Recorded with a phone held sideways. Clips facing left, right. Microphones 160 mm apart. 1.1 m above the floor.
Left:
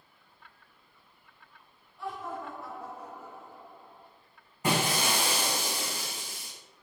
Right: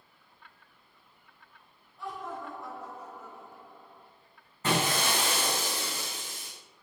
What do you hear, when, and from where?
2.0 s laughter: centre (ahead or behind), 5 m; by 4.1 s 25° left (ahead or behind), 5 m
4.6 s breaking glass: 15° left (ahead or behind), 7.5 m